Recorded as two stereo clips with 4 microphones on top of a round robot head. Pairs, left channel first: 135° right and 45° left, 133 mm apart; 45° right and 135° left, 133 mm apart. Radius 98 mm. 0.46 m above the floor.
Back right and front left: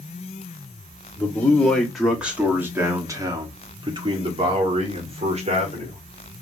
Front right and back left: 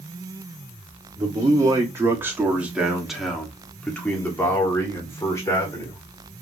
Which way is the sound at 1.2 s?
160° left.